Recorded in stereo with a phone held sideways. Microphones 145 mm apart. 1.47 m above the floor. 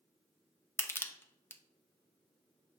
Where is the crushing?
15° left (ahead or behind), 0.5 m.